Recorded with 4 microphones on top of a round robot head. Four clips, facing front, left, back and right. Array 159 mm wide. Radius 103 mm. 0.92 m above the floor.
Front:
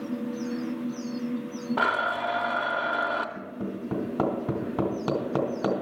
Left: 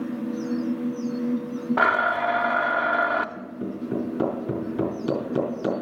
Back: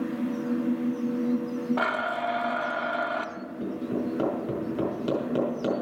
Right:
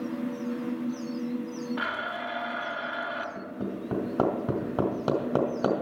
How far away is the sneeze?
No sneeze in this recording.